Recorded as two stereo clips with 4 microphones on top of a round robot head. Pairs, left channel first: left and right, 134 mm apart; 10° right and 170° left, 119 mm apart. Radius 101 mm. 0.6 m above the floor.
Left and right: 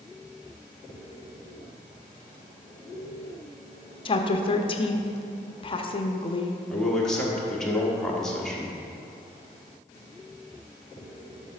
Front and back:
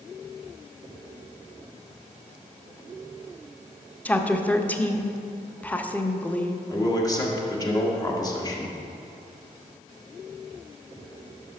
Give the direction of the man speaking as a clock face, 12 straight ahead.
12 o'clock.